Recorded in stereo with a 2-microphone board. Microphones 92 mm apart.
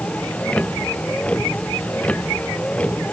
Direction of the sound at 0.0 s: 15° left (ahead or behind).